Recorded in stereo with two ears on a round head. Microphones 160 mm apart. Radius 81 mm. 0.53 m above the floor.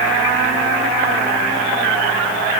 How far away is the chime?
I don't hear a chime.